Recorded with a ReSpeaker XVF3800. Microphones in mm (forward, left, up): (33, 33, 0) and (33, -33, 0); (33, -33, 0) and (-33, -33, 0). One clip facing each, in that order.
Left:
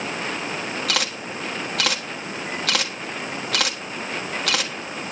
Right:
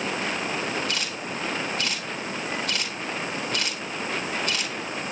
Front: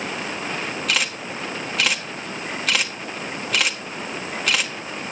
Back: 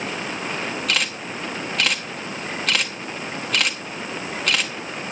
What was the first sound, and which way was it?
A camera shutter, 85° left.